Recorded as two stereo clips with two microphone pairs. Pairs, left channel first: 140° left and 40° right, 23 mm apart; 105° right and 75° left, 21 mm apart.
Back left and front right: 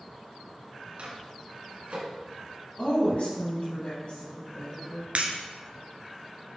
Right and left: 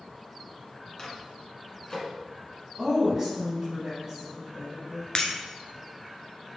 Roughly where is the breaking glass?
Ahead right.